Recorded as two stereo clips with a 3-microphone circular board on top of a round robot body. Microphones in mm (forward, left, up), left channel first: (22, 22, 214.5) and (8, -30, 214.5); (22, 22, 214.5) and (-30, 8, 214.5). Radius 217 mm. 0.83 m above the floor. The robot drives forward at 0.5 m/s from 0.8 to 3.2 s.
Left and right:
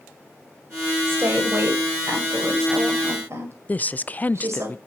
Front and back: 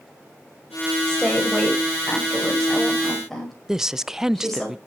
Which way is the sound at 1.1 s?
60° right.